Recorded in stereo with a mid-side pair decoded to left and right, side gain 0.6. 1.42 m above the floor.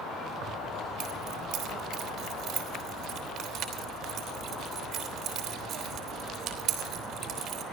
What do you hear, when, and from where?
0.4 s keys jangling: 50° right, 3.5 m